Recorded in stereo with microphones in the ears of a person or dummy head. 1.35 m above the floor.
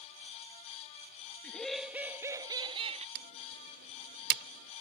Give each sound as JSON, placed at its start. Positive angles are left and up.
{"t": 1.4, "sound": "laughter", "side_deg": 5}
{"t": 3.1, "sound": "typing on a keyboard", "side_deg": -60}